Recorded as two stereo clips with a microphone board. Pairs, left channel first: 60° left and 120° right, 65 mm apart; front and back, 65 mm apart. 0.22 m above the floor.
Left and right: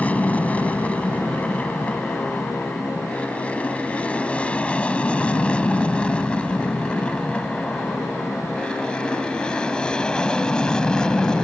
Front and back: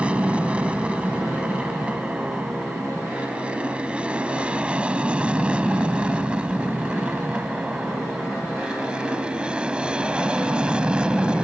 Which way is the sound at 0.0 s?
115° left.